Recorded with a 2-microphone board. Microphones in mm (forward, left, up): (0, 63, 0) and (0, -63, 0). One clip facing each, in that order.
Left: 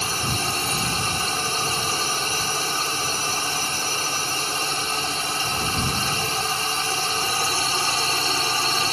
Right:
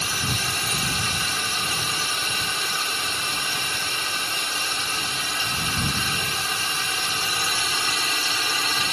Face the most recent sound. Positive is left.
turn(degrees=30)  # may be behind; listen again after turning